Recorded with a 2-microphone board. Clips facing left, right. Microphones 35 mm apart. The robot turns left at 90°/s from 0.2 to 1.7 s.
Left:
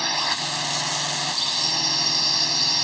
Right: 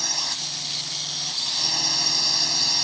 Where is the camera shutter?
I don't hear a camera shutter.